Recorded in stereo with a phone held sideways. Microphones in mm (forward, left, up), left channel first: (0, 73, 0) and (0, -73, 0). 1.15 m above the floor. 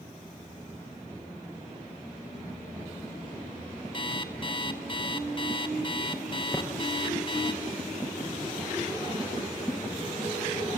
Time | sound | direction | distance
3.9 | an alarm clock | 35° left (ahead or behind) | 1.3 m
6.5 | tapping | centre (ahead or behind) | 4 m